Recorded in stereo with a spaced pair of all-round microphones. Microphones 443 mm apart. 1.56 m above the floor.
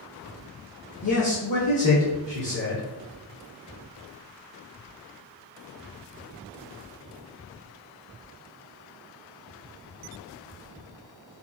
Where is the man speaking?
45° left (ahead or behind), 0.8 m.